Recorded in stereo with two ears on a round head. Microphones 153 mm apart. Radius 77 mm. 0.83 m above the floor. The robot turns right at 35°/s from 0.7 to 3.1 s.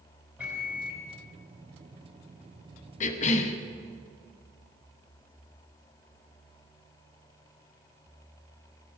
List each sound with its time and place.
0.4 s a microwave: 10° right (ahead or behind), 2.5 m; by 1.1 s 20° right (ahead or behind), 2.5 m
3.0 s a cough: 45° left (ahead or behind), 0.8 m